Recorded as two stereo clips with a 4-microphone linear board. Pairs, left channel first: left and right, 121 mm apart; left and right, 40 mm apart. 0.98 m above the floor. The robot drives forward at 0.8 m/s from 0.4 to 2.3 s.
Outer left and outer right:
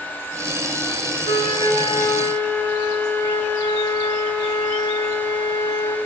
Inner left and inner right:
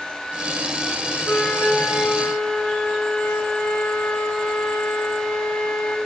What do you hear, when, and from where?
1.2 s a flute: 65° left (ahead or behind), 0.8 m; by 6.0 s 30° left (ahead or behind), 1.4 m